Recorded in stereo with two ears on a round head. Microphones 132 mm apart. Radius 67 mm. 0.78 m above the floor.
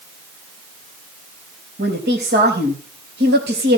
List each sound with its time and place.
1.8 s a woman speaking: 80° right, 4 m